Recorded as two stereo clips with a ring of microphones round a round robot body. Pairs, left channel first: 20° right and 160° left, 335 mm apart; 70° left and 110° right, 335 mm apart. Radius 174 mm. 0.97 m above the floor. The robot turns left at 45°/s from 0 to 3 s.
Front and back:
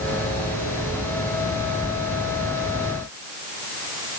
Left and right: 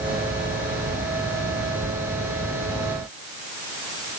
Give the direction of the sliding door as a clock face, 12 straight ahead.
No sliding door in this recording.